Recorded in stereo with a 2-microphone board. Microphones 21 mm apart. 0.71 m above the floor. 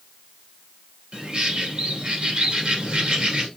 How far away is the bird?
About 2 m.